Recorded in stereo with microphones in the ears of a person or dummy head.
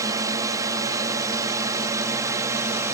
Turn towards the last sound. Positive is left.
turn(degrees=-15)  # may be behind; listen again after turning